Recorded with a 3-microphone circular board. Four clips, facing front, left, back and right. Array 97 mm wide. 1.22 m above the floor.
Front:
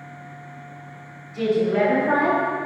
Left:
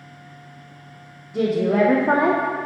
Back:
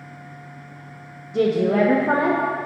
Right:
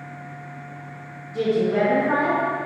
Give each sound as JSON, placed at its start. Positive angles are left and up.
{"t": 1.3, "sound": "a woman speaking", "azimuth_deg": 165, "distance_m": 1.0}